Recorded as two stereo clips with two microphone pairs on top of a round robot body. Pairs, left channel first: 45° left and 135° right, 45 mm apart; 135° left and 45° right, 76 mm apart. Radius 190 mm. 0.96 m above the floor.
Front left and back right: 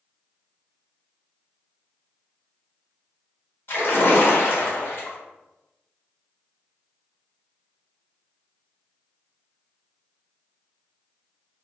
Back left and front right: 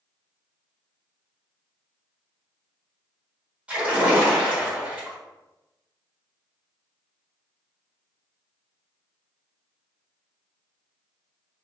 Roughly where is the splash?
Ahead left.